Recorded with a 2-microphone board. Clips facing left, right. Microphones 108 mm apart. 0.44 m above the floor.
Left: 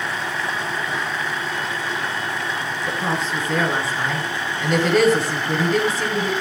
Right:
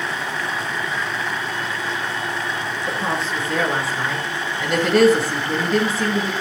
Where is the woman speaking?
Centre (ahead or behind), 7 m.